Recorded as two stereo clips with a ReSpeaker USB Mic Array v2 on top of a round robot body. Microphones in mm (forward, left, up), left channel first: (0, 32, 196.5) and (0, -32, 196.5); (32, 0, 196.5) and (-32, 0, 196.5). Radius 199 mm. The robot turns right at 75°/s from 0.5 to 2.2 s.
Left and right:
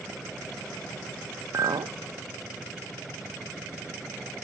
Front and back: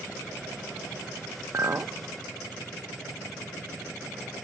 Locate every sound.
1.5 s a clink: 135° right, 0.6 m; by 1.9 s 105° right, 0.6 m